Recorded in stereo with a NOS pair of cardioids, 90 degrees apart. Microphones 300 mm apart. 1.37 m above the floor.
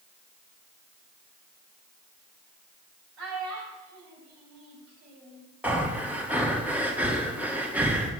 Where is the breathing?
5° right, 1.5 m.